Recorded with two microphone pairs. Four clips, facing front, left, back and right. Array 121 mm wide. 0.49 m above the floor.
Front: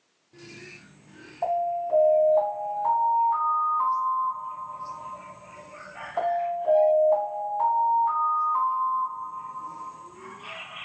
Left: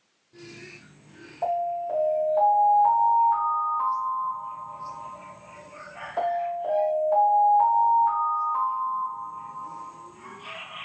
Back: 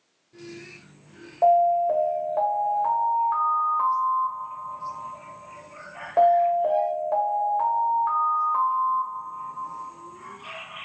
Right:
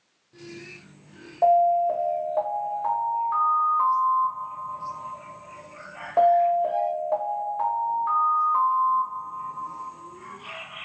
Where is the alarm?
160° right, 1.4 m.